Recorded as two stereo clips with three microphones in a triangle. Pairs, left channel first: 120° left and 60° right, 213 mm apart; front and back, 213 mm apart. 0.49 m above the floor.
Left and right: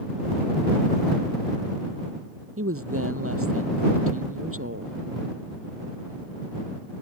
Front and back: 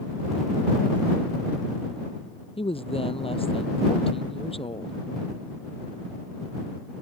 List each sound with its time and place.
2.6 s a woman speaking: 65° right